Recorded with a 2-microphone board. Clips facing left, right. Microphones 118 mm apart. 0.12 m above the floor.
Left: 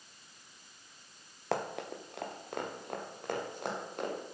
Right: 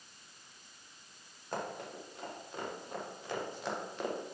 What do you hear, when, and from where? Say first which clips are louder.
1.5 s running footsteps: left 4 dB; 90° left, 2.0 m; by 4.2 s 50° left (ahead or behind), 5.5 m